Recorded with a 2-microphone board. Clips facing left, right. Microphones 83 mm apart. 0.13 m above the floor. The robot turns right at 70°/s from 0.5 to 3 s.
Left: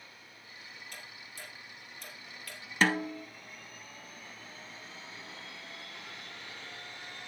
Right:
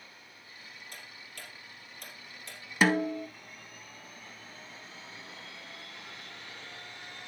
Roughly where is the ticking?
Right.